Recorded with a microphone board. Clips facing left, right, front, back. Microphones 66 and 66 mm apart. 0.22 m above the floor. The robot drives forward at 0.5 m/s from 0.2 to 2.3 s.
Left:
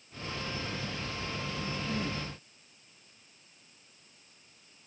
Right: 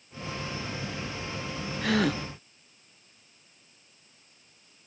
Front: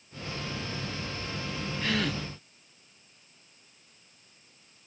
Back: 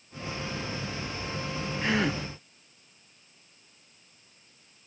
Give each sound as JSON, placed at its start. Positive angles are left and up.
{"t": 1.8, "sound": "a gasp", "azimuth_deg": -110}